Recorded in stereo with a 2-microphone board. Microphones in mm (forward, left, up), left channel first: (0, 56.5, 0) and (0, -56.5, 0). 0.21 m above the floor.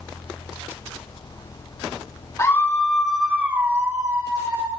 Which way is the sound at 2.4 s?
30° left (ahead or behind).